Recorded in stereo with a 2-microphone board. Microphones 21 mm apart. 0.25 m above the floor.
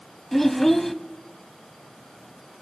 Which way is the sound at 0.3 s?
15° left (ahead or behind).